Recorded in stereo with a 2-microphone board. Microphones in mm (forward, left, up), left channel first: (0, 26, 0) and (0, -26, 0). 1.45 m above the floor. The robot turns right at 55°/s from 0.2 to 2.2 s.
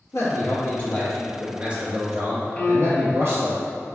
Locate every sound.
0.1 s a man speaking: 120° left, 1.1 m; by 3.6 s 130° right, 1.1 m
2.6 s a piano: 20° left (ahead or behind), 0.6 m